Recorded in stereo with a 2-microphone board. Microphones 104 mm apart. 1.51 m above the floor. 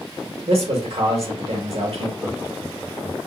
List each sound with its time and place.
0.5 s a man speaking: 80° right, 1.0 m
2.2 s laughter: 25° right (ahead or behind), 1.0 m